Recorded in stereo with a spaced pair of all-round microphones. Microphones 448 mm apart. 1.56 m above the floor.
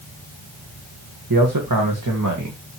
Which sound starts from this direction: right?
A man speaking, at 1.3 s.